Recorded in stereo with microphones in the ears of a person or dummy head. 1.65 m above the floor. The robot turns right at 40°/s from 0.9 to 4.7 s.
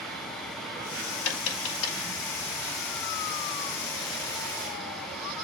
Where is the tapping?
75° left (ahead or behind), 5 m.